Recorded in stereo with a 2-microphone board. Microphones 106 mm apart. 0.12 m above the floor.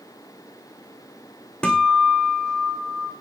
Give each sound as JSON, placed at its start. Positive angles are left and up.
{"t": 1.6, "sound": "a guitar", "side_deg": 10, "distance_m": 3.0}